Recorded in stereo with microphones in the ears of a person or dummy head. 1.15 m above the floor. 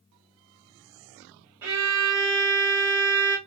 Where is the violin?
15° right (ahead or behind), 1.0 m.